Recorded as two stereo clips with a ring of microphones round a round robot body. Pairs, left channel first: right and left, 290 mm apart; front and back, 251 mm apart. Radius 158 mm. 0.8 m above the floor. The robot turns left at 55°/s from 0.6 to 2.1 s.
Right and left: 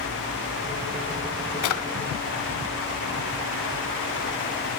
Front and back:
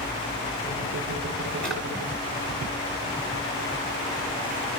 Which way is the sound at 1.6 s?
85° right.